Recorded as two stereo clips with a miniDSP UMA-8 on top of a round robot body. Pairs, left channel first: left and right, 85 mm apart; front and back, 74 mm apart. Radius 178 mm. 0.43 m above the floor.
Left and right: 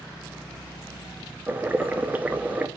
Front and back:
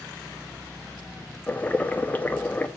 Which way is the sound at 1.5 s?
40° right.